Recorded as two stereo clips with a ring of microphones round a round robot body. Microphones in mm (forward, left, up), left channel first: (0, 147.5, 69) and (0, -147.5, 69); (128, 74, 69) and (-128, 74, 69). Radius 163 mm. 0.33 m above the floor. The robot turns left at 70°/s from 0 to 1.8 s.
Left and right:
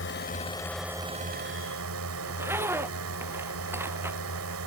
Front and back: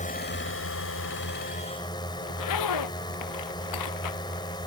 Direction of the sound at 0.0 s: 55° left.